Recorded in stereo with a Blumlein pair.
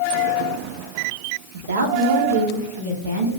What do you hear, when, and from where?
1.5 s a woman speaking: 60° right, 0.6 m; by 3.3 s 80° right, 1.7 m